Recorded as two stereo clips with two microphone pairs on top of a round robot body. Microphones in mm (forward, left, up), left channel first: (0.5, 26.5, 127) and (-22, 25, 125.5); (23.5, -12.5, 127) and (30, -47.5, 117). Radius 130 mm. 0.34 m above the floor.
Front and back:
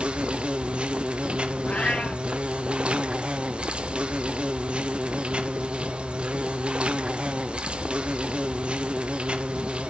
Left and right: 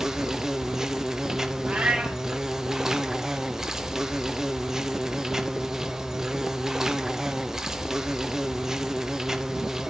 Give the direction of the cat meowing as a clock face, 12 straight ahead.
1 o'clock.